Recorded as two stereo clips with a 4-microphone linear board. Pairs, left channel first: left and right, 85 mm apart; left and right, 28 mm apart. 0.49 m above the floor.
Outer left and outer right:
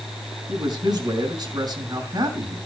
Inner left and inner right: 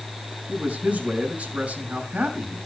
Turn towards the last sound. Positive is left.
turn(degrees=-55)  # may be behind; listen again after turning